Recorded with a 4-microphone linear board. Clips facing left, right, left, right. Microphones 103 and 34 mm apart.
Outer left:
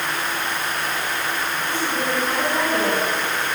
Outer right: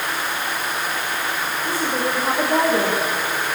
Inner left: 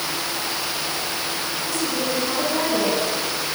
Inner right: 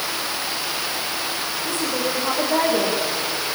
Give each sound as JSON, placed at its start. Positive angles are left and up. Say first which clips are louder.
{"t": 1.6, "sound": "a woman speaking", "louder": "outer right 3 dB, inner right 1 dB", "side_deg": -35, "distance_m": 8.0}